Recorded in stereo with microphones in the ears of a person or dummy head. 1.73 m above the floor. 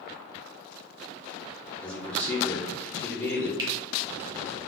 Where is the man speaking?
20° left (ahead or behind), 0.9 m.